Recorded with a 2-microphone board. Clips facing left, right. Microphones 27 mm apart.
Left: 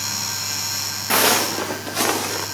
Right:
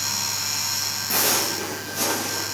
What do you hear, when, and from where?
1.1 s footsteps: 55° left (ahead or behind), 0.8 m; by 2.5 s 60° left (ahead or behind), 1.7 m